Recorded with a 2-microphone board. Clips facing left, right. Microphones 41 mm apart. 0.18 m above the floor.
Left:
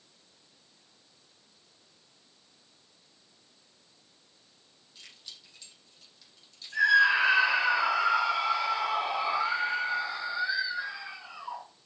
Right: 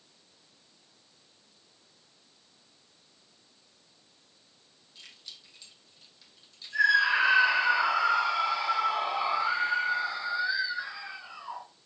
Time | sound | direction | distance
5.0 | keys jangling | centre (ahead or behind) | 6 m
6.7 | a scream | 15° left (ahead or behind) | 5 m